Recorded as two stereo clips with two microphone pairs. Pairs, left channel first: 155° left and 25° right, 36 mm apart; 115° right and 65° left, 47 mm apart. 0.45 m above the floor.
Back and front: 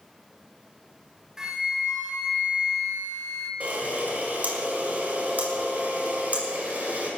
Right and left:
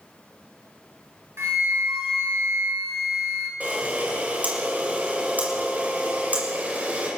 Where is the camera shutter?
15° left, 5.5 m.